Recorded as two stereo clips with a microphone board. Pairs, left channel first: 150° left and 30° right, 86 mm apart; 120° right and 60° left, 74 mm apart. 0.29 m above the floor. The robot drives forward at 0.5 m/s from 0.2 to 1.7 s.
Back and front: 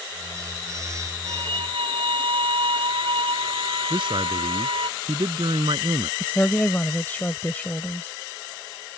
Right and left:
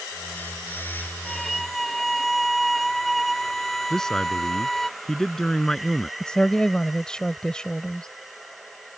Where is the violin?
35° right.